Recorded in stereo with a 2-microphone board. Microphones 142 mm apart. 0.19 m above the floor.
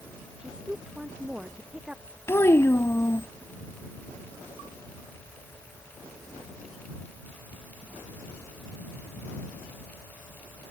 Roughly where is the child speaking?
Centre.